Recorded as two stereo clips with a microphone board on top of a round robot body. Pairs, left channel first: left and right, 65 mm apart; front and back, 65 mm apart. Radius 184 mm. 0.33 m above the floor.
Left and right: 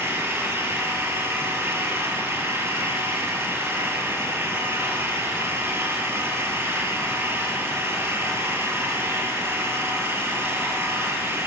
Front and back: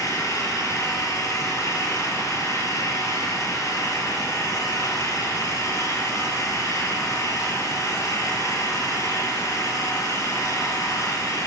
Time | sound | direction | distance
0.0 | an engine running | 35° right | 5 m